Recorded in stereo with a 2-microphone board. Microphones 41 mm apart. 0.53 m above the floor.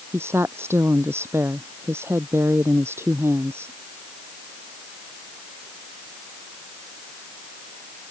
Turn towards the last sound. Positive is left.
turn(degrees=-80)